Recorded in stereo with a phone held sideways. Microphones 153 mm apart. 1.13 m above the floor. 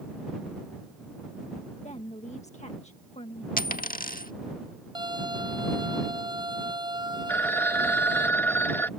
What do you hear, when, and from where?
1.8 s a woman speaking: 50° left (ahead or behind)
3.6 s a dropped coin: 65° left (ahead or behind)
5.0 s a violin: 30° right (ahead or behind)
7.3 s a phone ringing: 10° left (ahead or behind)